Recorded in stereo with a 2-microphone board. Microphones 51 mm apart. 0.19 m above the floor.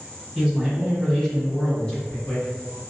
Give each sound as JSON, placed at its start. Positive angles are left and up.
{"t": 0.3, "sound": "a man speaking", "side_deg": 0, "distance_m": 1.2}